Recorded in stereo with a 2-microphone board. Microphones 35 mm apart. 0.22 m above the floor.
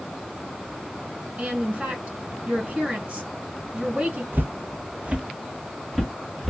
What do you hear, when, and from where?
1.4 s a woman speaking: 40° right (ahead or behind), 1.8 m
4.3 s footsteps: 75° right (ahead or behind), 0.6 m; by 6.5 s centre (ahead or behind), 1.4 m